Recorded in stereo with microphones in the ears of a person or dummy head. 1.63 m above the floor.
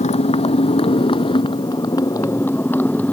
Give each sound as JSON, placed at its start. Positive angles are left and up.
{"t": 0.0, "sound": "a motorcycle", "side_deg": 30}